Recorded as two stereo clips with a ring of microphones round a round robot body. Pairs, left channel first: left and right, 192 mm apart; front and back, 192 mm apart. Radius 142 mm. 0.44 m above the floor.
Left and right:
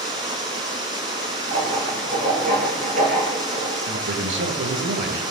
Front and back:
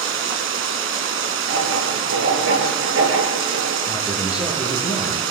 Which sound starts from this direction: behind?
Running water, at 0.0 s.